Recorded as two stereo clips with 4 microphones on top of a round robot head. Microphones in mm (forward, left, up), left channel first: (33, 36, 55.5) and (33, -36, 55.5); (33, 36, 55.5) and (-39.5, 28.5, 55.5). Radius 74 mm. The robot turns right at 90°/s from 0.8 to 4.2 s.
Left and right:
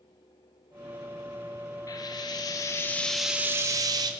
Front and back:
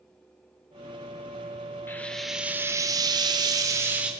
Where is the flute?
I don't hear a flute.